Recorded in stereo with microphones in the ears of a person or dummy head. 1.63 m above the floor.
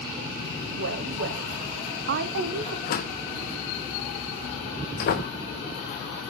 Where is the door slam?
45° left (ahead or behind), 0.9 m.